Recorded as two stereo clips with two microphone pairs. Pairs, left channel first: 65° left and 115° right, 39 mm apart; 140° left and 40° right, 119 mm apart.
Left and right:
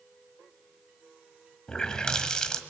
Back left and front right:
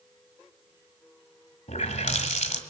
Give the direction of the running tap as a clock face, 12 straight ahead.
8 o'clock.